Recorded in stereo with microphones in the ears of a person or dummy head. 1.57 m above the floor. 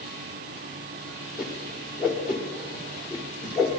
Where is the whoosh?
Centre (ahead or behind), 1.3 m.